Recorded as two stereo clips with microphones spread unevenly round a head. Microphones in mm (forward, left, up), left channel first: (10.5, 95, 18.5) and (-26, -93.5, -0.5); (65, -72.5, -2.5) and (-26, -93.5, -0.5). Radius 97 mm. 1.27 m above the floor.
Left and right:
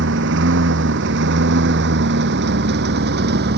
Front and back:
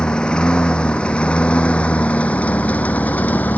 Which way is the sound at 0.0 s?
70° right.